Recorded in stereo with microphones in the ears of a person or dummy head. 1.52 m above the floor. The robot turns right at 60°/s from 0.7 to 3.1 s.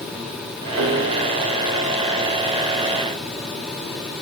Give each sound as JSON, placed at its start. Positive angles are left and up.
{"t": 0.8, "sound": "a piano", "side_deg": -75, "distance_m": 4.0}